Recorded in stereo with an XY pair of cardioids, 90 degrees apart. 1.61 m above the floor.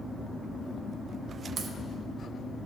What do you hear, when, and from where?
1.6 s a crack: 60° right, 1.2 m